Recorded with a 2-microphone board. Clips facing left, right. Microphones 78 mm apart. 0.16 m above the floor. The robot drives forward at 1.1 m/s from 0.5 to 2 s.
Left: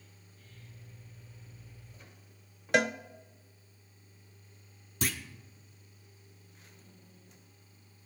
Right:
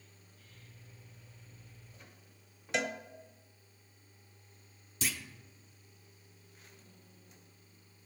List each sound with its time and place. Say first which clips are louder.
2.7 s a cowbell: left 7 dB; 65° left (ahead or behind), 0.7 m
5.0 s a clunk: left 4 dB; 50° left (ahead or behind), 1.1 m